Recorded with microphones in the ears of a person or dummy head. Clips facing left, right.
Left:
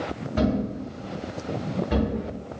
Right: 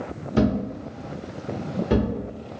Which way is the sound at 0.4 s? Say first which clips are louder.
Right 2 dB; 55° right (ahead or behind).